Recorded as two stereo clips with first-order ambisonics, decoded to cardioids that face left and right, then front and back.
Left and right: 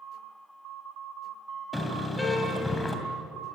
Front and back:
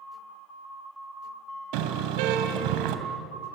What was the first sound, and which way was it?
A car horn, 175° left.